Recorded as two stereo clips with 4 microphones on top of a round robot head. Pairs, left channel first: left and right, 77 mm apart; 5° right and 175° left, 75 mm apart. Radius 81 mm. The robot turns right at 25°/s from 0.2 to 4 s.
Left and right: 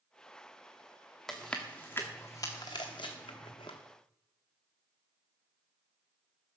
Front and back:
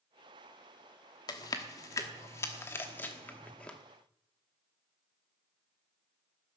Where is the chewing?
5° left, 1.0 m; by 3.8 s 65° left, 1.0 m.